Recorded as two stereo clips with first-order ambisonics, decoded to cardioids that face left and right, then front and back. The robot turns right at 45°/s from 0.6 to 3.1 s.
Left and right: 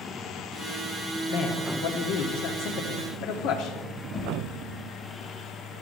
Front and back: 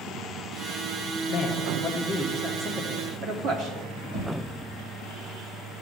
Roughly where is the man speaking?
Ahead left.